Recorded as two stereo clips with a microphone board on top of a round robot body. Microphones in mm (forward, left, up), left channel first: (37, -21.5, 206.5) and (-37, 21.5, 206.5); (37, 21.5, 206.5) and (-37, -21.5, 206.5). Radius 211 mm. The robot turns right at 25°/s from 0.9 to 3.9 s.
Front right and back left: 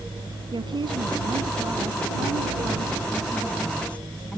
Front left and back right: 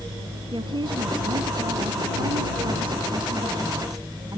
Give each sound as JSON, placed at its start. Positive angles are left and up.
{"t": 0.5, "sound": "a woman speaking", "azimuth_deg": 180}